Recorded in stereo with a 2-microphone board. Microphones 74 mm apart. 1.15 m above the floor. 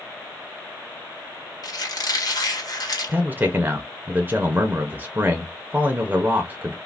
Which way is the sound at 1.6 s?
50° left (ahead or behind).